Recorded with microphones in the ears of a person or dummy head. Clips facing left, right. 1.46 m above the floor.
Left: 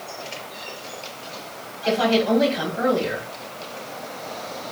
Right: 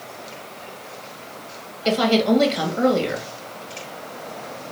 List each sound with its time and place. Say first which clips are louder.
1.9 s a woman speaking: right 1 dB; 50° right (ahead or behind), 2.0 m